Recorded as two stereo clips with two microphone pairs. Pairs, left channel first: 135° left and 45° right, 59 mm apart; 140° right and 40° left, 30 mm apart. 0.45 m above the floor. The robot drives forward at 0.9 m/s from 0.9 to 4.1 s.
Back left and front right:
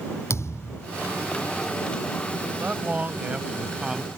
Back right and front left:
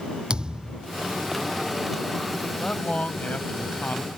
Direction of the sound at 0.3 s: 95° left.